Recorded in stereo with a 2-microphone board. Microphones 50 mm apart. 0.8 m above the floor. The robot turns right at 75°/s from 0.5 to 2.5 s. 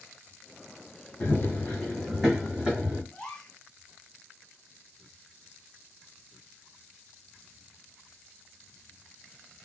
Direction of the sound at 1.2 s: 55° left (ahead or behind).